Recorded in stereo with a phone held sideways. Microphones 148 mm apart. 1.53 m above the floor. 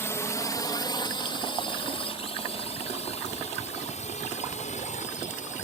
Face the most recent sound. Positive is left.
turn(degrees=55)  # may be behind; listen again after turning